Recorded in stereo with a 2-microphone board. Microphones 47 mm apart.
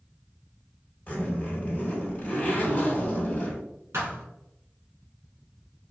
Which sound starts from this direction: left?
A zipper, at 1.1 s.